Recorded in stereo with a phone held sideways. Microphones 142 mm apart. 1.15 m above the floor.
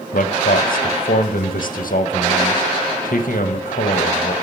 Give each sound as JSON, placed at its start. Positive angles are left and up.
{"t": 0.1, "sound": "a man speaking", "side_deg": 80, "distance_m": 0.9}